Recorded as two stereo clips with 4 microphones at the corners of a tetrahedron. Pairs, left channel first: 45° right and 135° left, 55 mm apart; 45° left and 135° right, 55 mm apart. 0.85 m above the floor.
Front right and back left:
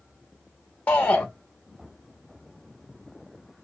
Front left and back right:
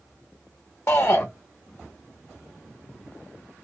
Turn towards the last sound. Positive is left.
turn(degrees=5)